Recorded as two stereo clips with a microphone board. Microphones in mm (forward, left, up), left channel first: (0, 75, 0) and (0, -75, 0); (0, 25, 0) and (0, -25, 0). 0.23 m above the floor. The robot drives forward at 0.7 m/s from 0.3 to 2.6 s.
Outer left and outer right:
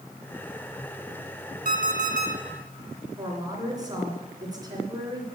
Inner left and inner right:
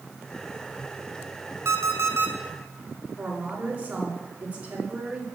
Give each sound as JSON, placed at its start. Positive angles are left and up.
{"t": 1.6, "sound": "an alarm clock", "side_deg": -65, "distance_m": 1.6}
{"t": 3.2, "sound": "a woman speaking", "side_deg": -25, "distance_m": 3.0}